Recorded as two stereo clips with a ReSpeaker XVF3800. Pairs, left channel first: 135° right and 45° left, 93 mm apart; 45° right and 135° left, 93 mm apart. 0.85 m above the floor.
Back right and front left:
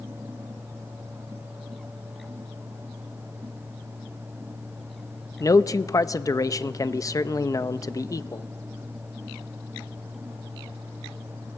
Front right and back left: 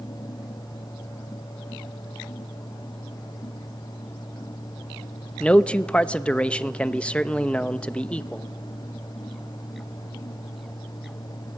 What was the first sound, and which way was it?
A man speaking, 115° right.